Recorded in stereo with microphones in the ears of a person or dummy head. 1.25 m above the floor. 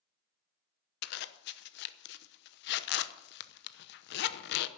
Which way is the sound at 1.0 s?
55° left (ahead or behind).